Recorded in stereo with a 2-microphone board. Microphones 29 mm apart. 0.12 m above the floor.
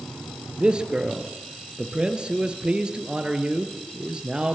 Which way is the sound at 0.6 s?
30° right (ahead or behind).